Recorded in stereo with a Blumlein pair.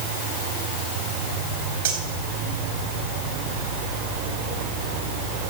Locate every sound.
1.9 s cutlery clinking: 60° right, 3.5 m